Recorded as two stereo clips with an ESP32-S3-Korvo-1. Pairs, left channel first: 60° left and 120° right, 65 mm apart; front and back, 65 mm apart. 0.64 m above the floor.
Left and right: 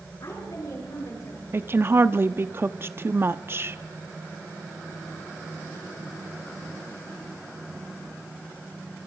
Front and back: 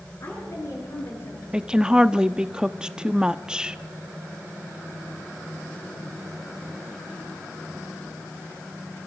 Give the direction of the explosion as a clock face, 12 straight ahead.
I don't hear an explosion.